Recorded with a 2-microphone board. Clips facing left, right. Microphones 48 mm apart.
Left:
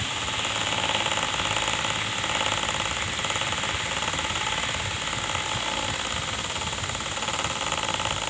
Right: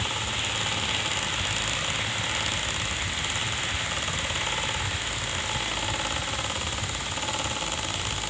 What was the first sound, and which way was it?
Only background noise.